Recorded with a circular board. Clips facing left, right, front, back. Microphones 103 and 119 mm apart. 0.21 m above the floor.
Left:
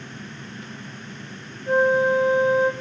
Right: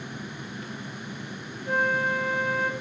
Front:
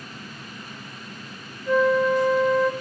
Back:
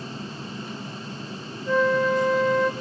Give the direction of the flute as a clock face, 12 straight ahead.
9 o'clock.